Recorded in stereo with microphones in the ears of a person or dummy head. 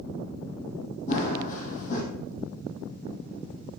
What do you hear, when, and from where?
1.1 s running footsteps: 45° left (ahead or behind), 3 m